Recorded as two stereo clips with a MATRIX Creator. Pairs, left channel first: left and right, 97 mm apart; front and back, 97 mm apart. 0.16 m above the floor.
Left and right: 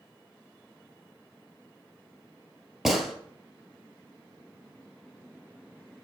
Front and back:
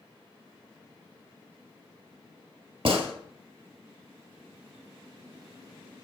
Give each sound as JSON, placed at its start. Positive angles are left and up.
{"t": 2.9, "sound": "a gunshot", "azimuth_deg": -175, "distance_m": 1.4}